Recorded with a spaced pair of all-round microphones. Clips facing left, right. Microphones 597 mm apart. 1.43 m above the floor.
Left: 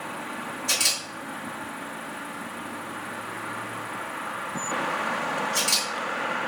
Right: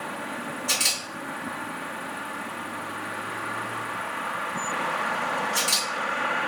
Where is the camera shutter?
20° left (ahead or behind), 1.6 m.